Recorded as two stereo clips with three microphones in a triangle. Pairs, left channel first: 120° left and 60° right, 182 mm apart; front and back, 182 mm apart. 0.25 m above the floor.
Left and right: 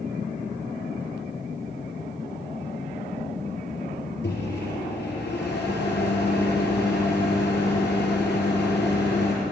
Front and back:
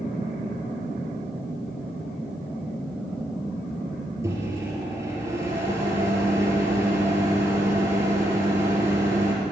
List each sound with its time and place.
4.2 s a microwave: 105° left, 3.5 m